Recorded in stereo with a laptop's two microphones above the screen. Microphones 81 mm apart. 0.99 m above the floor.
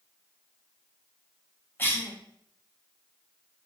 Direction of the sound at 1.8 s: 25° left (ahead or behind).